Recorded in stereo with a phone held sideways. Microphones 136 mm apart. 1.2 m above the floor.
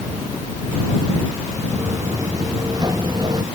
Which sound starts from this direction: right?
Footsteps, at 1.7 s.